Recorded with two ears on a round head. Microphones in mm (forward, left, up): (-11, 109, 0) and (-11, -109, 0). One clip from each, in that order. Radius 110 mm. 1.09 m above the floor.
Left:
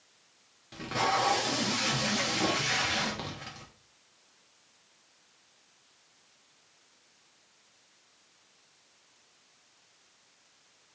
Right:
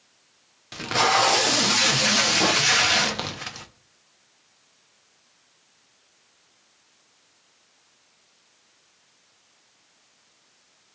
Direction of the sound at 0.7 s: 45° right (ahead or behind).